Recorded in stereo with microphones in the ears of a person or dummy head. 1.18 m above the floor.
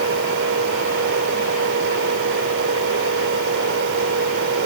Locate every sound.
0.0 s a fan: 65° right (ahead or behind)